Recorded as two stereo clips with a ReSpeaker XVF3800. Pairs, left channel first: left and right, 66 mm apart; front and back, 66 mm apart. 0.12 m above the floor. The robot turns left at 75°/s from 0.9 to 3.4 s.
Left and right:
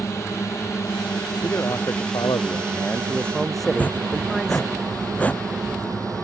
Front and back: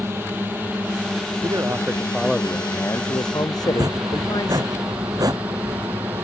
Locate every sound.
0.0 s a drone: 130° left; by 6.2 s 120° right
1.4 s a man speaking: 150° left; by 4.6 s 5° left
3.6 s chopping: 160° left